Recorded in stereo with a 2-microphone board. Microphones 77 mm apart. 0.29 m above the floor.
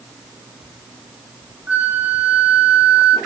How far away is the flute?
About 1.2 m.